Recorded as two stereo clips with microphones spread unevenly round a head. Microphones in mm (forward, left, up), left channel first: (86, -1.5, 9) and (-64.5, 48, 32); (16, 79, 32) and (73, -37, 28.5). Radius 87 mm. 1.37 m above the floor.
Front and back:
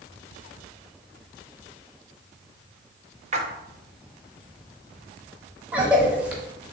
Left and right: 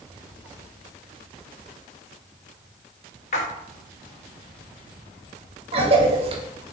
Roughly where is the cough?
Behind right.